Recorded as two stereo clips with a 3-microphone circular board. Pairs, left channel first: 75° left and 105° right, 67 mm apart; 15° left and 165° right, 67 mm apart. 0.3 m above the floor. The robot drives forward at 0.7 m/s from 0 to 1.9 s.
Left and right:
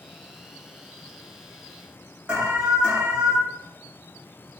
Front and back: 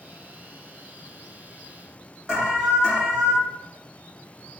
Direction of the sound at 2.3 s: 115° right.